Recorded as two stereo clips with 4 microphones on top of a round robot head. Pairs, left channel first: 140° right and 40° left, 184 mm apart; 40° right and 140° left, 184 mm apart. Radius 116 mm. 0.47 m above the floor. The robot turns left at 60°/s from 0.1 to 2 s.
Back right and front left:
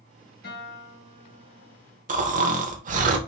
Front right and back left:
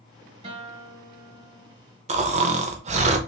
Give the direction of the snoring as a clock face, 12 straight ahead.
9 o'clock.